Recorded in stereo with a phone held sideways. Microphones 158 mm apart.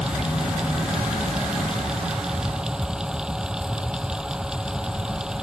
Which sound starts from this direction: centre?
A fan, at 0.0 s.